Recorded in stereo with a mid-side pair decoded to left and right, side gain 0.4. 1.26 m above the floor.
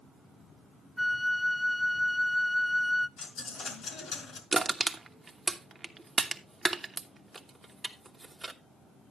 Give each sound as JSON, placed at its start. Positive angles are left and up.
{"t": 1.0, "sound": "a flute", "azimuth_deg": 10, "distance_m": 0.5}
{"t": 3.2, "sound": "a dropped coin", "azimuth_deg": 65, "distance_m": 3.0}
{"t": 4.5, "sound": "crushing", "azimuth_deg": -30, "distance_m": 1.1}